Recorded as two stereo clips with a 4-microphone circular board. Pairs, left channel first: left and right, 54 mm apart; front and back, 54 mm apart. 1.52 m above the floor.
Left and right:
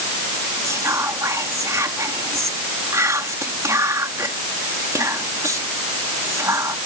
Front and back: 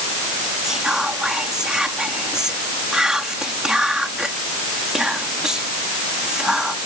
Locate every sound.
0.6 s whispering: 105° right